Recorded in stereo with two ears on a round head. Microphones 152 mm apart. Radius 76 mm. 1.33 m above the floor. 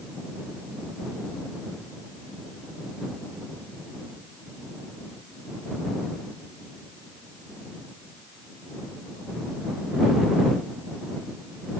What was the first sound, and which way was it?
Only background noise.